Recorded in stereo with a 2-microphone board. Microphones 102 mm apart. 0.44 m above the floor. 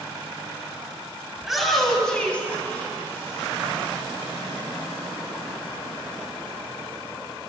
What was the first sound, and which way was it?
A shout, 5° right (ahead or behind).